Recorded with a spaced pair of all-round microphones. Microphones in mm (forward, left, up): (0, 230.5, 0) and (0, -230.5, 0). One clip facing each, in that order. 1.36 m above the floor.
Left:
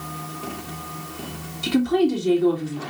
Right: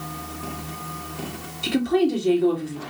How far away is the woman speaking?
About 3 m.